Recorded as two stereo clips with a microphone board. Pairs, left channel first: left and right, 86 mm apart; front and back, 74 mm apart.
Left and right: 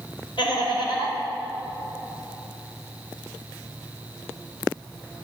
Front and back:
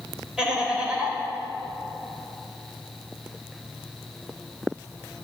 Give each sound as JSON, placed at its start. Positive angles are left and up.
{"t": 0.4, "sound": "laughter", "azimuth_deg": 100, "distance_m": 3.5}